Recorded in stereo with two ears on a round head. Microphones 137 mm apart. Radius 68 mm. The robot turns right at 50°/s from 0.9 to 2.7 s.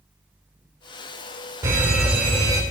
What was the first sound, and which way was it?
A fire alarm, 20° right.